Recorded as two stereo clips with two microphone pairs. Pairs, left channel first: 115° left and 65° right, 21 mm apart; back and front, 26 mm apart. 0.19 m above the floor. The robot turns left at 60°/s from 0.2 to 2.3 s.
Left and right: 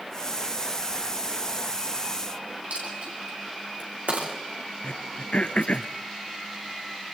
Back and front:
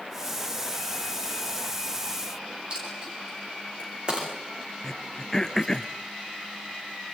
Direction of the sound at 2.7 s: 55° right.